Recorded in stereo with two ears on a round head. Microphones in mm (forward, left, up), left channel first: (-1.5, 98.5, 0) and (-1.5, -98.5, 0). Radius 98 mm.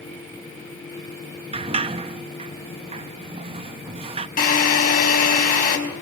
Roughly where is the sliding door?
Right.